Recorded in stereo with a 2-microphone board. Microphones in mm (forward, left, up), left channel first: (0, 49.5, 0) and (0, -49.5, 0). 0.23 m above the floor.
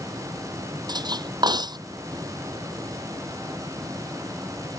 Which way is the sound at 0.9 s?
45° right (ahead or behind).